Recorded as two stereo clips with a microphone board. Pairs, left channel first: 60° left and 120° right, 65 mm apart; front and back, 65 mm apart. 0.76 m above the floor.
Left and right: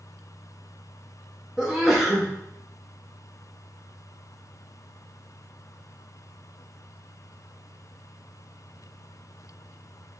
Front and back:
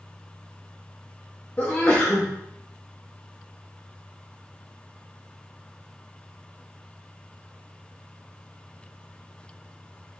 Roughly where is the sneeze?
Ahead right.